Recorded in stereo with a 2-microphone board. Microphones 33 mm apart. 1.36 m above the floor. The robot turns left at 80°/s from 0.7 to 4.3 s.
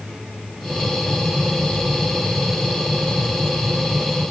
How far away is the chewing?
No chewing in this recording.